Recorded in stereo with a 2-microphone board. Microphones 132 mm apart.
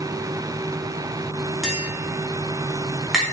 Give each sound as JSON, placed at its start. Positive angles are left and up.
{"t": 1.6, "sound": "tapping", "side_deg": -5, "distance_m": 2.5}